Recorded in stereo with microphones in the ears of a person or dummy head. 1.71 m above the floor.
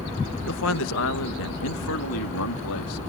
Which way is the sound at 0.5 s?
70° left (ahead or behind).